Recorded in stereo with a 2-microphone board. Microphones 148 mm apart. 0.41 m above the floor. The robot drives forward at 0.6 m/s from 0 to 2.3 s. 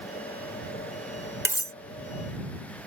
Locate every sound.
1.4 s cutlery clinking: 15° right (ahead or behind); by 1.7 s 20° right (ahead or behind)